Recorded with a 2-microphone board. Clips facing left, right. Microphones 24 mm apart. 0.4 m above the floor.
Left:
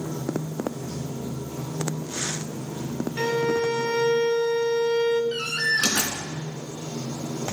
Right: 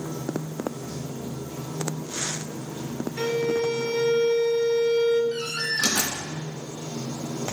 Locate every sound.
0.0 s running water: 60° left (ahead or behind), 9 m
3.2 s a violin: 40° left (ahead or behind), 1.2 m
5.3 s a door slam: 65° left (ahead or behind), 3 m